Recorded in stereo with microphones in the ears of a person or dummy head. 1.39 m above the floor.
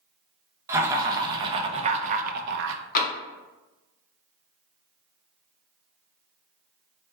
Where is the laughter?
5° right (ahead or behind), 1.2 m; by 2.8 s 65° right (ahead or behind), 0.5 m.